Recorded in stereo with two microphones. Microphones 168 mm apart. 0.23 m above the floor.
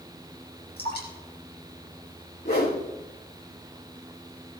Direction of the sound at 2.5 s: 70° left (ahead or behind).